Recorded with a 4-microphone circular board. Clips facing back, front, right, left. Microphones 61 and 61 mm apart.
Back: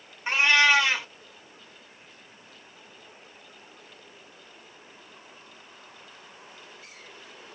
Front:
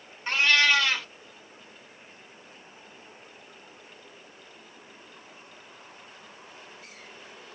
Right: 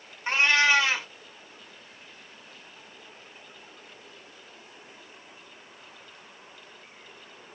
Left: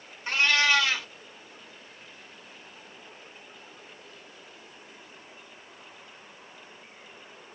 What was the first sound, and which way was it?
A cat meowing, 125° right.